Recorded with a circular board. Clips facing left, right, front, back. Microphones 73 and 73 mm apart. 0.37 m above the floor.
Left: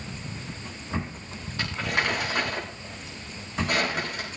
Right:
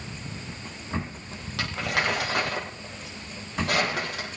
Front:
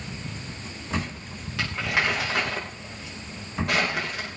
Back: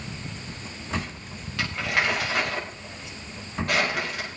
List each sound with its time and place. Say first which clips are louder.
1.6 s crumpling: even, even; 90° right, 6 m